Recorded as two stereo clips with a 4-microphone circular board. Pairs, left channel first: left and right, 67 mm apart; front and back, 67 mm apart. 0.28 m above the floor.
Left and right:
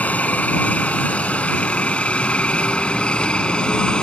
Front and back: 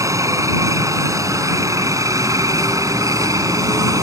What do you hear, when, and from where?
0.0 s a helicopter: 155° left; by 4.0 s 165° left